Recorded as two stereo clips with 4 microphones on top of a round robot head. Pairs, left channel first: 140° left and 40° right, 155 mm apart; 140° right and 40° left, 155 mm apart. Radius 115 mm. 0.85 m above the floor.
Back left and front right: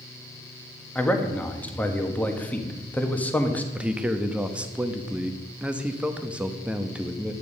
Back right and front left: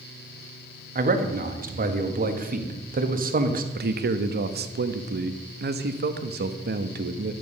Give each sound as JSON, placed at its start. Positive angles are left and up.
{"t": 0.9, "sound": "a man speaking", "azimuth_deg": 60, "distance_m": 1.5}
{"t": 3.8, "sound": "a man speaking", "azimuth_deg": 40, "distance_m": 1.0}